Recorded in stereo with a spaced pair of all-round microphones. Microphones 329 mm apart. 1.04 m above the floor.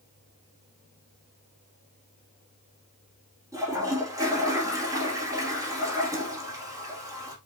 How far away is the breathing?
I don't hear breathing.